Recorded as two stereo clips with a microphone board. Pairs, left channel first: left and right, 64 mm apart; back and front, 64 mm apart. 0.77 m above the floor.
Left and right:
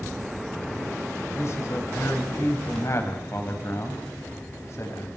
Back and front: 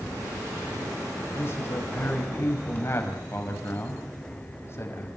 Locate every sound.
1.4 s a man speaking: 130° left, 4.5 m